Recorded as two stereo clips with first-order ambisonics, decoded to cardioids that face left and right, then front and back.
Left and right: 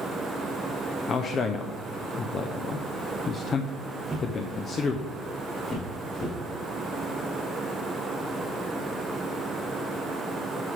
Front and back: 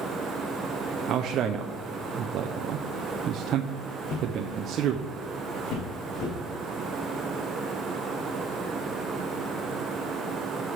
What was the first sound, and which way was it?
A man speaking, 145° left.